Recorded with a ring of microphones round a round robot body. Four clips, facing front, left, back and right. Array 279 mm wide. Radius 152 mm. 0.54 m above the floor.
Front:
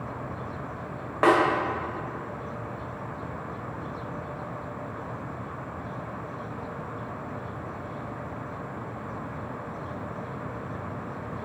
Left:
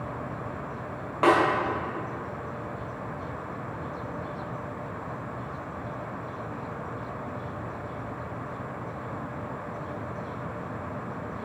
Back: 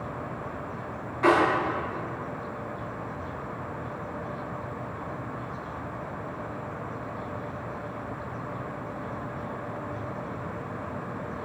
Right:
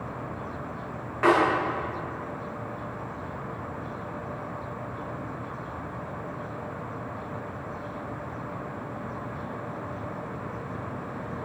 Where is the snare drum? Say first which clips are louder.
Even, front 1 dB; 15° left, 1.7 m.